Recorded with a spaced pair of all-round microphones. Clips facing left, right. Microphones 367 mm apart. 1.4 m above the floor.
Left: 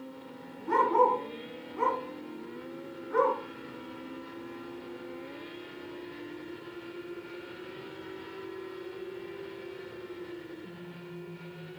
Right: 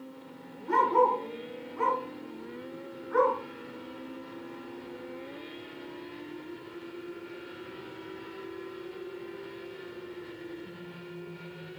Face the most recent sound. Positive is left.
turn(degrees=45)  # may be behind; listen again after turning